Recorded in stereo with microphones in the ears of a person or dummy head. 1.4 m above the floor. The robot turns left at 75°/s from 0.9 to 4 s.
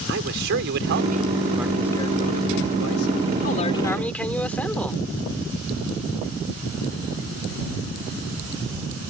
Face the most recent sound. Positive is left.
turn(degrees=5)